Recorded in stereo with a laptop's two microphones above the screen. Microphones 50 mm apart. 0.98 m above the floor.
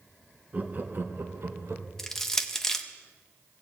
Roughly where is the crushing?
Centre.